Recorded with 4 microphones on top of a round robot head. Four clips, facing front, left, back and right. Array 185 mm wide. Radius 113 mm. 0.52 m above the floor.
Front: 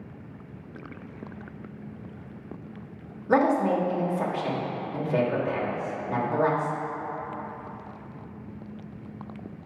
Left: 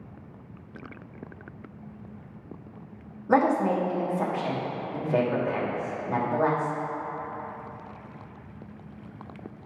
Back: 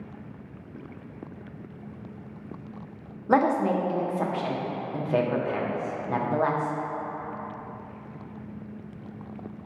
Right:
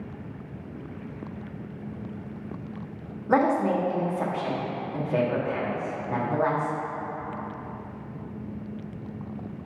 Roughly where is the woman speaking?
Behind.